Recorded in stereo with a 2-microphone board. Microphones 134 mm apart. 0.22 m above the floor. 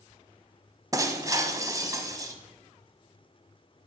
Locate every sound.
0.9 s breaking glass: 25° right (ahead or behind), 0.8 m